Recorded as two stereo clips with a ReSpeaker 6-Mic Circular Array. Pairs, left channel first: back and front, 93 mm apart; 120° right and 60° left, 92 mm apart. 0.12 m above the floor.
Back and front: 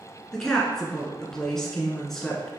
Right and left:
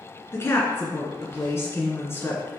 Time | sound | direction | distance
0.3 | a woman speaking | 100° right | 1.4 m